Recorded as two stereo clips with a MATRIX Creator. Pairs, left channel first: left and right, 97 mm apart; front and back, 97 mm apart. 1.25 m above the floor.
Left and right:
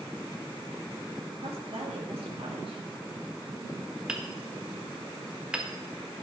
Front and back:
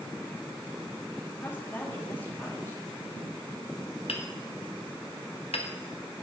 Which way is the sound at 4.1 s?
10° right.